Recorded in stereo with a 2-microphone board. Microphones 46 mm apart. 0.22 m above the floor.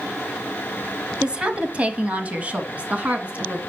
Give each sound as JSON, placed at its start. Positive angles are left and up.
{"t": 1.2, "sound": "a woman speaking", "side_deg": -20, "distance_m": 1.1}